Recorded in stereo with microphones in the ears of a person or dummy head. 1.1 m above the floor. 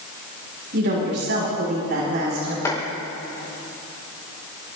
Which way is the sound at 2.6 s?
15° left (ahead or behind).